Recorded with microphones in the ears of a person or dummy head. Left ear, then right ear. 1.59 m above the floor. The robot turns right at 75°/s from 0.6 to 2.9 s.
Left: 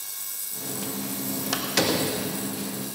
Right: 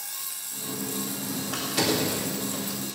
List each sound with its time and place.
1.5 s a door slam: 70° left (ahead or behind), 2 m; by 2.2 s 25° left (ahead or behind), 2 m